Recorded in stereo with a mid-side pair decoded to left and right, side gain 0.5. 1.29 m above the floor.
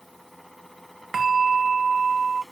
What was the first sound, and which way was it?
A fan, 5° left.